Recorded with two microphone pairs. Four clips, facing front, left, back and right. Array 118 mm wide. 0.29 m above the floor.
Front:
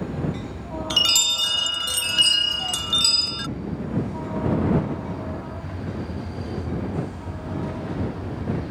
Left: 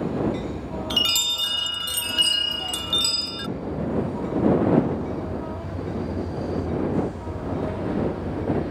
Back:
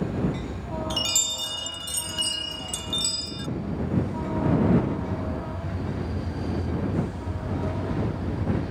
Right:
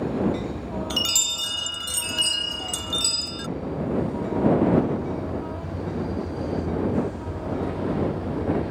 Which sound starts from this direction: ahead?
A chime, at 0.9 s.